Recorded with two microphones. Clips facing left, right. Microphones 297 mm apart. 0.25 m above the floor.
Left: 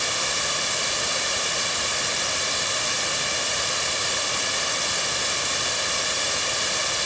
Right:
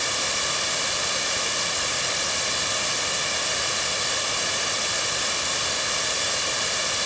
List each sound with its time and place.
Only background noise.